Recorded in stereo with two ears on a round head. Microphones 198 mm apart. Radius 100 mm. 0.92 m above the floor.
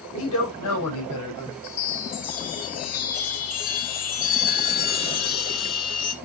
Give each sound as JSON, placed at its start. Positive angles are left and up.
{"t": 0.1, "sound": "a man speaking", "side_deg": 80, "distance_m": 4.5}
{"t": 1.6, "sound": "a chime", "side_deg": 70, "distance_m": 2.0}